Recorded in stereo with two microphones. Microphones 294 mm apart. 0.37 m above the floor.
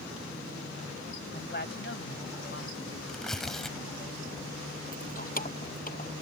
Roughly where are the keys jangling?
Left.